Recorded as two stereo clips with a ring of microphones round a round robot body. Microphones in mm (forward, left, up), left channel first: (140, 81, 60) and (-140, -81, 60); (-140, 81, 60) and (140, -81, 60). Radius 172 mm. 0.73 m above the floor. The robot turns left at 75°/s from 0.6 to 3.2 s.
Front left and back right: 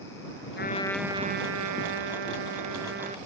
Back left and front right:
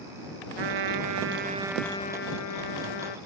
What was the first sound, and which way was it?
A trumpet, 30° right.